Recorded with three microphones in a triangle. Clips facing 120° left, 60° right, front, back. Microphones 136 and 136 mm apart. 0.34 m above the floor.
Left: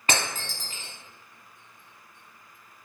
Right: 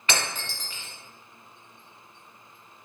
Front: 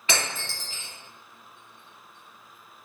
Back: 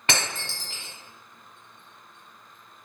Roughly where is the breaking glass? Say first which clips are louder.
Left 1 dB, back 1 dB; behind.